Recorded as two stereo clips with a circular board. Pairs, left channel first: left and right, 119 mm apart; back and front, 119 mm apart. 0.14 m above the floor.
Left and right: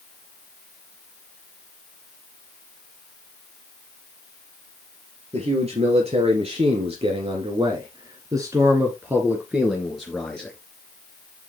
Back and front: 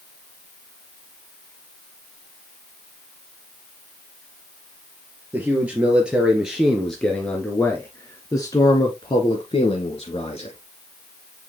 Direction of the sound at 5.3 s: 75° right.